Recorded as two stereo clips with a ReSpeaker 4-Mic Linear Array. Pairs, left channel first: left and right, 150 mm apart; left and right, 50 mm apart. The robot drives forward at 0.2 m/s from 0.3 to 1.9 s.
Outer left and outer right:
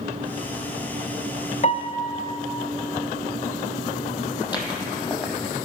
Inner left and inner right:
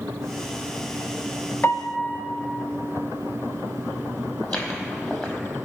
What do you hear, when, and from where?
1.6 s a piano: 50° left (ahead or behind), 0.6 m; by 2.2 s 45° left (ahead or behind), 0.6 m
4.4 s footsteps: 30° left (ahead or behind), 2.0 m